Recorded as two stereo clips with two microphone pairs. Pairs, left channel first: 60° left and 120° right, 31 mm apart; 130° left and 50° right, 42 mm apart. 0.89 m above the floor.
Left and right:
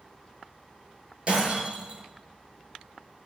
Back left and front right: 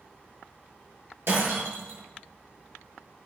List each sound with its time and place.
1.3 s breaking glass: 65° right, 8.5 m